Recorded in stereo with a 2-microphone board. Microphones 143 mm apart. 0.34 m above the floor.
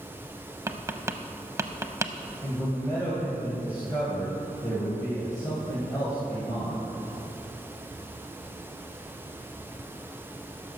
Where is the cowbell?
No cowbell in this recording.